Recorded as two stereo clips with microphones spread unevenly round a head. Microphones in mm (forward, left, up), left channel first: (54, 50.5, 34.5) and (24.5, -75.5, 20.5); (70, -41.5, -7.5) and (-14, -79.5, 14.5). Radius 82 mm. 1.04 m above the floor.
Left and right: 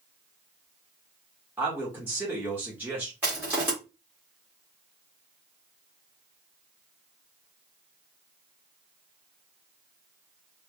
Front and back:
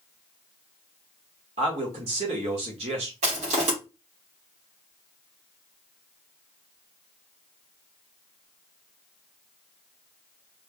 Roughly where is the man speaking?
Behind.